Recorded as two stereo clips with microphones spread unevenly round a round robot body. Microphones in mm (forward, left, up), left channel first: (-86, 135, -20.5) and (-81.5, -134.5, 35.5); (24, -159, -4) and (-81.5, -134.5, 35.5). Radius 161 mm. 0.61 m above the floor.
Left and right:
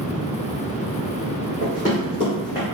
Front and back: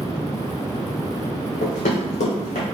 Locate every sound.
1.6 s running footsteps: 20° left, 1.8 m; by 2.6 s 5° left, 1.5 m